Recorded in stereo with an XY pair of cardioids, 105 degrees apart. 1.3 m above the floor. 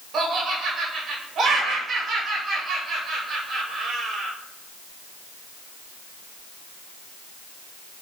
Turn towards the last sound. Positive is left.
turn(degrees=-70)